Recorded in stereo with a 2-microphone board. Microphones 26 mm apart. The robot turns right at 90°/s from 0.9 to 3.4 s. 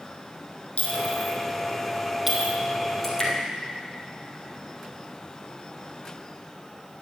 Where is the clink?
70° left (ahead or behind), 3 m; by 2.5 s 40° right (ahead or behind), 3 m.